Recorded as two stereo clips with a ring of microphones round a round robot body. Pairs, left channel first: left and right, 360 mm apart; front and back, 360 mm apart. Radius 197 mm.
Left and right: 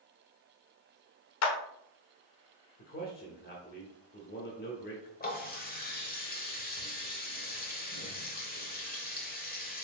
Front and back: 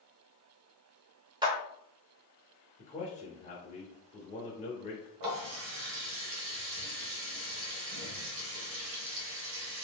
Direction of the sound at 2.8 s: 55° left.